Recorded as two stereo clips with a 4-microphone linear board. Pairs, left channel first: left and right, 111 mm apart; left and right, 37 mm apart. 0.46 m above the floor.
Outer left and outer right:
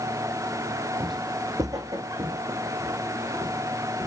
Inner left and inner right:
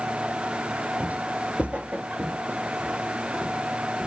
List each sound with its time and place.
1.0 s footsteps: 45° right (ahead or behind), 0.6 m; by 4.1 s 20° right (ahead or behind), 3 m